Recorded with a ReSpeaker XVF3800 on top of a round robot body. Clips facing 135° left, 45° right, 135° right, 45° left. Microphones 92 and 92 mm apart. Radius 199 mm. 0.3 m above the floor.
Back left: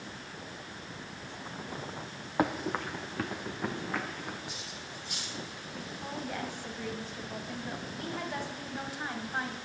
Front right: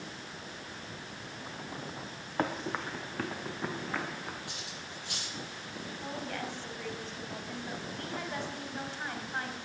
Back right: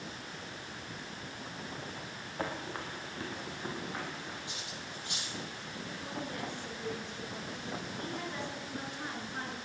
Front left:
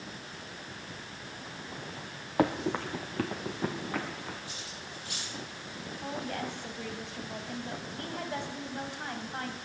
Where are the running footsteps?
55° left, 0.6 m; by 4.4 s 45° left, 3.5 m.